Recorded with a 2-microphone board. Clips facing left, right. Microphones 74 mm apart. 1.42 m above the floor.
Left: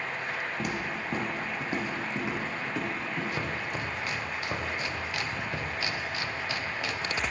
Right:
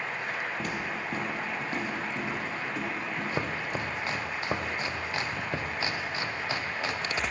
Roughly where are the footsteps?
Centre.